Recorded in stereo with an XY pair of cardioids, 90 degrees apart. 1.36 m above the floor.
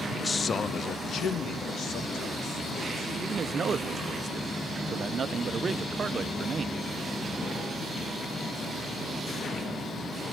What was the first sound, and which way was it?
A man speaking, 20° left.